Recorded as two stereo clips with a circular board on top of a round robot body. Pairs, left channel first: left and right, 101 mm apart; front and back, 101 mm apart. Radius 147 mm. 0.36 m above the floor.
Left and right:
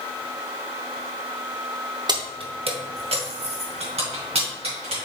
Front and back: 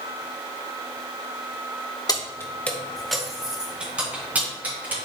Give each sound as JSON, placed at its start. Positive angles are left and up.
{"t": 2.1, "sound": "keys jangling", "azimuth_deg": -50, "distance_m": 1.2}